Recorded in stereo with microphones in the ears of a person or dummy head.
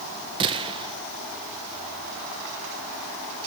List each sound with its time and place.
0.4 s a gunshot: 25° right (ahead or behind), 1.6 m